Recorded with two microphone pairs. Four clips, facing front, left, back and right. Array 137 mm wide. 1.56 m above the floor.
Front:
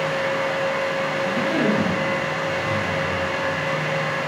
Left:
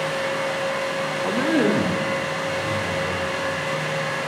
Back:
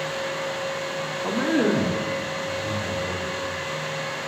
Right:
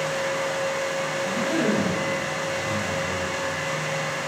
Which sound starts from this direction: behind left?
A man speaking, at 1.2 s.